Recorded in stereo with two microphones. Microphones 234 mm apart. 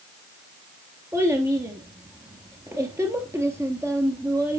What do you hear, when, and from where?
1.1 s a child speaking: 10° right (ahead or behind), 1.5 m